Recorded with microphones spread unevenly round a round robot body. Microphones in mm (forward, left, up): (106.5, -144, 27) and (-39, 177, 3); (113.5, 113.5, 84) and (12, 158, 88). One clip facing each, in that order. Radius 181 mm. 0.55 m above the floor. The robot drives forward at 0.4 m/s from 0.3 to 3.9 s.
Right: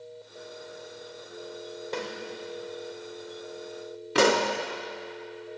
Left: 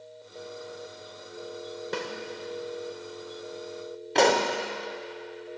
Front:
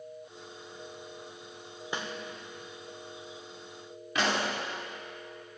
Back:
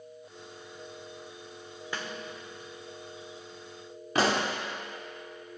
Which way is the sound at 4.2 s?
145° right.